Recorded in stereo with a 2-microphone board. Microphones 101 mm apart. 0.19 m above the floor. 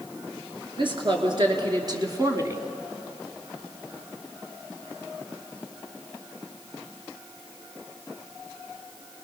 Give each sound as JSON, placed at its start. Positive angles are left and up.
{"t": 0.8, "sound": "a woman speaking", "side_deg": -50, "distance_m": 3.5}